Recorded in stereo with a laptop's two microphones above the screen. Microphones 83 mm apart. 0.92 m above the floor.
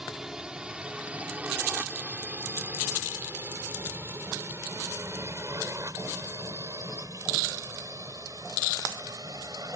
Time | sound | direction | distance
0.0 | a drone | 5° right (ahead or behind) | ?